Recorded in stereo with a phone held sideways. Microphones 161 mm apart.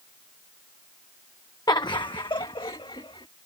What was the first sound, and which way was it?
Laughter, 25° left (ahead or behind).